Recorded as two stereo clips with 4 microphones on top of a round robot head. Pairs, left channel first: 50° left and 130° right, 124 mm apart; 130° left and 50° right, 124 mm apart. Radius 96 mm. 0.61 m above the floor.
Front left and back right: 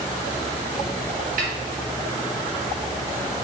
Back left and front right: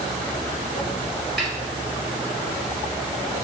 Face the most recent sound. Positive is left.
turn(degrees=-145)